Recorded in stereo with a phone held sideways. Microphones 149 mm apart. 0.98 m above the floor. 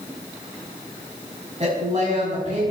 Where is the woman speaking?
40° right (ahead or behind), 6.5 m.